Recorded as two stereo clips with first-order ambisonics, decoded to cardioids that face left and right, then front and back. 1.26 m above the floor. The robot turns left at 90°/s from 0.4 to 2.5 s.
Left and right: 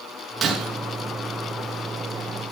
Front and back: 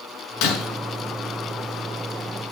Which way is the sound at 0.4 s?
15° right.